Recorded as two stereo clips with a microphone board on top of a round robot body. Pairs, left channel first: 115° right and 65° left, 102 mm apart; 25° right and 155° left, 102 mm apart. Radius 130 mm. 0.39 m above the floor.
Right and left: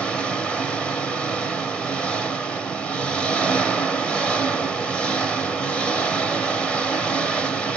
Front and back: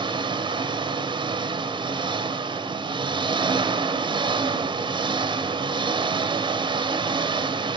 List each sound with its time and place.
0.0 s an engine running: 170° left, 1.2 m